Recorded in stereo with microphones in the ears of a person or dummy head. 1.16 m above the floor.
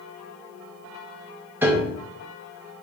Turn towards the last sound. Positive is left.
turn(degrees=-15)  # may be behind; listen again after turning